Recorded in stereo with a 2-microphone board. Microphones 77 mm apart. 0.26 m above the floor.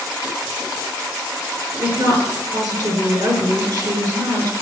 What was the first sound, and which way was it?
A woman speaking, 55° right (ahead or behind).